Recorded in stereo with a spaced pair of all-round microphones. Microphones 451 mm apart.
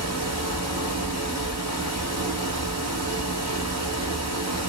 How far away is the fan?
About 1.1 m.